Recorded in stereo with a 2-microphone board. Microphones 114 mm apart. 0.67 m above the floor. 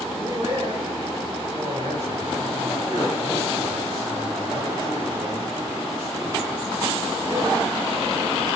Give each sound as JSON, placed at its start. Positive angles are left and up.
{"t": 0.1, "sound": "a man speaking", "side_deg": -45, "distance_m": 3.0}